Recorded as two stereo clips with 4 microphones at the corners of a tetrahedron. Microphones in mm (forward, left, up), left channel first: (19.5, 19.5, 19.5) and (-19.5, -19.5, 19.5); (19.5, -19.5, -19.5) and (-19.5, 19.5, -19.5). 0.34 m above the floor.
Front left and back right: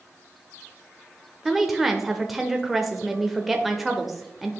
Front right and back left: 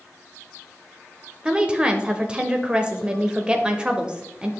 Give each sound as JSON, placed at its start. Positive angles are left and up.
{"t": 1.4, "sound": "a woman speaking", "azimuth_deg": 145, "distance_m": 0.8}